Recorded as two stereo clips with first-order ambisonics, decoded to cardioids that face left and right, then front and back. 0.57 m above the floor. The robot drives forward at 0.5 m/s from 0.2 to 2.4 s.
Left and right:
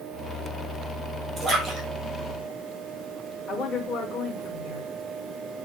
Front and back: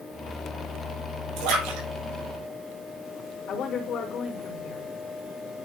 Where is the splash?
160° right, 4.5 m.